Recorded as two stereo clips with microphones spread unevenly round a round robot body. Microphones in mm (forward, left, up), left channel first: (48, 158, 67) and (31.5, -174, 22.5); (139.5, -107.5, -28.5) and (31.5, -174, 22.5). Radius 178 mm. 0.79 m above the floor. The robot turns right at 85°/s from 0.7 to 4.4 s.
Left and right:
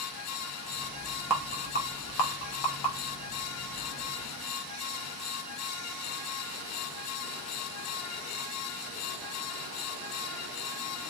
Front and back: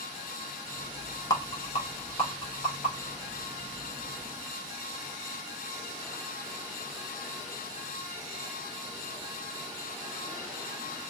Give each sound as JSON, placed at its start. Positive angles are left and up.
{"t": 1.3, "sound": "a rattle", "azimuth_deg": -15, "distance_m": 0.9}